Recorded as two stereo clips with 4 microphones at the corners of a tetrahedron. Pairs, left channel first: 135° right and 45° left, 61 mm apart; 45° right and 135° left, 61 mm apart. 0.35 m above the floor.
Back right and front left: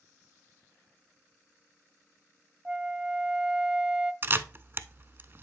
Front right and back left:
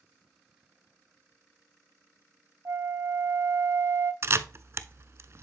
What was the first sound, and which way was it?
A flute, 115° left.